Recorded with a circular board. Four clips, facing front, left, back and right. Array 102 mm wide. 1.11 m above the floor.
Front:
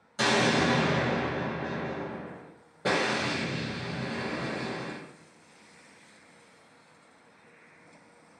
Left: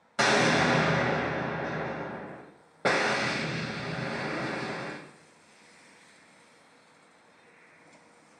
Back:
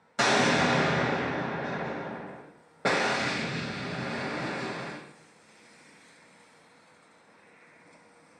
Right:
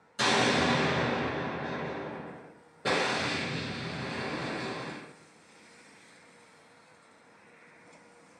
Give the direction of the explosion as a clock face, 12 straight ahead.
8 o'clock.